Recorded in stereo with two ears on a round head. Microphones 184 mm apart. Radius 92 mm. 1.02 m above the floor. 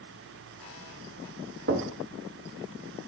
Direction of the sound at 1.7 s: 55° right (ahead or behind).